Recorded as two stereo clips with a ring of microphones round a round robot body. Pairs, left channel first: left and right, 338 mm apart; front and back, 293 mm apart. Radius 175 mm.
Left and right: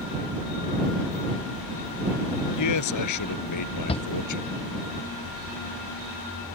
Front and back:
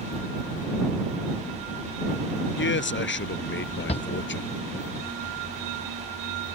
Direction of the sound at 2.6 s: 50° left.